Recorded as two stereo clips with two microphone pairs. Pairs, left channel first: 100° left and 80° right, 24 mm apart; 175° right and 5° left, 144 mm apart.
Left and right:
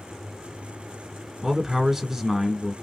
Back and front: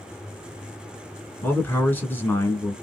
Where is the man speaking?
120° right, 1.2 m.